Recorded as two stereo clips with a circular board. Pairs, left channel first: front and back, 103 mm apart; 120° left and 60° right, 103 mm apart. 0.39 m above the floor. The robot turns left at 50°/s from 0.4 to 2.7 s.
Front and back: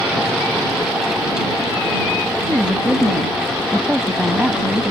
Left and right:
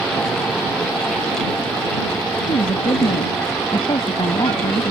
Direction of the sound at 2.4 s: 115° left.